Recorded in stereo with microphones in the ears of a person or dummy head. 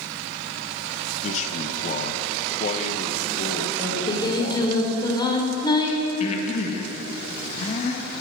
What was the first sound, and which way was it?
A man speaking, 40° left (ahead or behind).